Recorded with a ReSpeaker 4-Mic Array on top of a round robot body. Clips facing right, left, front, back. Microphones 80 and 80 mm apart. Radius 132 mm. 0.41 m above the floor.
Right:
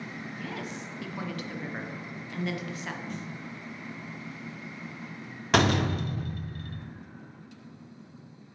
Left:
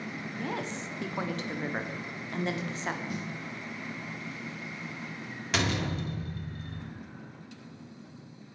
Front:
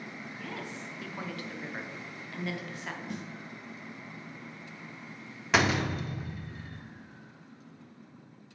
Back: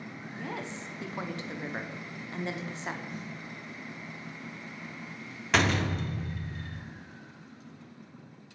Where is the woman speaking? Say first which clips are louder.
Left 4 dB, back 4 dB; 130° left, 0.9 m.